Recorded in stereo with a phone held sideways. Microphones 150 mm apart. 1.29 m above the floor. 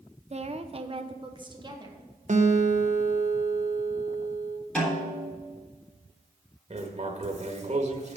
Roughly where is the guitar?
Right.